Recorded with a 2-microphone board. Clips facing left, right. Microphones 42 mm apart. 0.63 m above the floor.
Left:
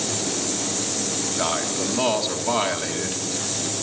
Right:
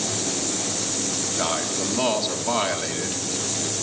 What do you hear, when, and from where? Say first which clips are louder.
1.4 s a man speaking: left 1 dB; 5° left (ahead or behind), 1.6 m